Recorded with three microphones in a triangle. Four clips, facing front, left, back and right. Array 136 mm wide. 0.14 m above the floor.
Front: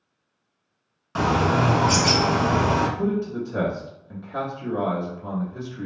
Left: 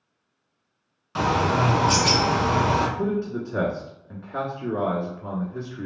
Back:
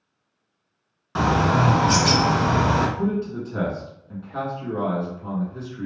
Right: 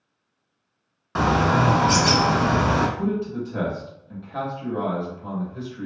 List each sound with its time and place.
1.1 s a bird: 100° right, 0.7 m
3.0 s a man speaking: 75° left, 1.3 m